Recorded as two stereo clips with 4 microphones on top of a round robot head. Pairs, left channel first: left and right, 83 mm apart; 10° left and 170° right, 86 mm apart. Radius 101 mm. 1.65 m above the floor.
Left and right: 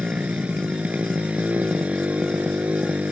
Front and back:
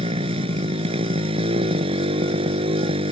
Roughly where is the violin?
I don't hear a violin.